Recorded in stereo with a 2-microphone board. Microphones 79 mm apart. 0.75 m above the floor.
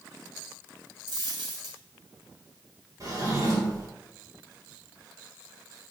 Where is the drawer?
45° right (ahead or behind), 1.8 m.